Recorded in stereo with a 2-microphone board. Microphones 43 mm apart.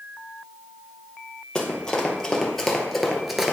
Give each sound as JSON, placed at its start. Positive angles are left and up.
{"t": 1.6, "sound": "running footsteps", "side_deg": 20, "distance_m": 2.0}